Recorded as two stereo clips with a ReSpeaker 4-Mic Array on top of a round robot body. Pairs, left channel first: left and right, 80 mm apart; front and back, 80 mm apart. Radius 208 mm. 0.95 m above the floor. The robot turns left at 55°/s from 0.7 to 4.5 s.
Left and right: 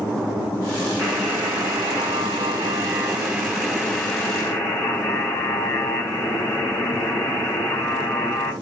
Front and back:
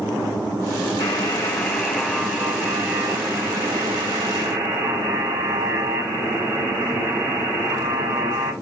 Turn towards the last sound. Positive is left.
turn(degrees=135)